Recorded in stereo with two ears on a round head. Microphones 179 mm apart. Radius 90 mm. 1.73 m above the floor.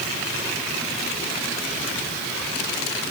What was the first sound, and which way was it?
Only background noise.